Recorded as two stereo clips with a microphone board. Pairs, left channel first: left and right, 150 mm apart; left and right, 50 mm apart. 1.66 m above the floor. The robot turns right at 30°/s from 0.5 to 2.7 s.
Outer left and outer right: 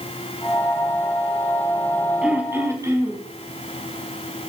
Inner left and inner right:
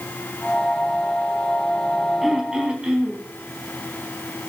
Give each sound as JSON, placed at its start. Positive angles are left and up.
{"t": 2.2, "sound": "throat clearing", "side_deg": -5, "distance_m": 4.5}